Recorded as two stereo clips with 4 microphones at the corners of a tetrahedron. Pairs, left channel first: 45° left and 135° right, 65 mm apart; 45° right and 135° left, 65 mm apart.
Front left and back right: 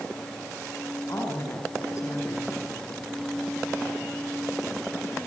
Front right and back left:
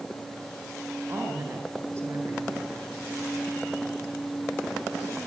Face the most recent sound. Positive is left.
turn(degrees=90)